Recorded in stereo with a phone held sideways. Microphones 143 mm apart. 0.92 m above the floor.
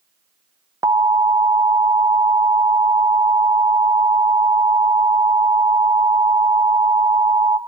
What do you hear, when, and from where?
0.8 s an alarm: 25° right (ahead or behind), 0.6 m